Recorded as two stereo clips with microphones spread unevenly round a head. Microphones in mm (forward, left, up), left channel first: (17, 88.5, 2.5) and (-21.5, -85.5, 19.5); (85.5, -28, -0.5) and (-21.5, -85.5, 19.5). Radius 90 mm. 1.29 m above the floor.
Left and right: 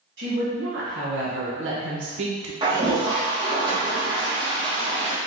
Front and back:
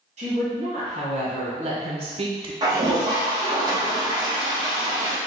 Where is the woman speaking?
125° right, 2.0 m; by 2.5 s 100° right, 0.8 m.